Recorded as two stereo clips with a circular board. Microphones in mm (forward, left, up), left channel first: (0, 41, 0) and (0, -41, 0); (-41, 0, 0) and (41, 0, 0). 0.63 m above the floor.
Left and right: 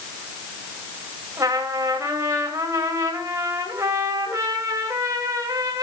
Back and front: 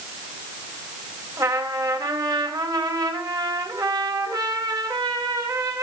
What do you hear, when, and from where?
1.4 s a trumpet: 40° right, 3 m